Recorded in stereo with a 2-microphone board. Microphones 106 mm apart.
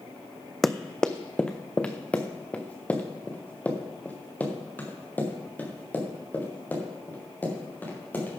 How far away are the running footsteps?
About 0.6 m.